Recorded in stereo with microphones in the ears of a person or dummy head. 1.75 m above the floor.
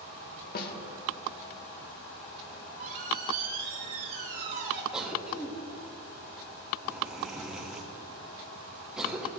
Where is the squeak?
45° right (ahead or behind), 1.6 m.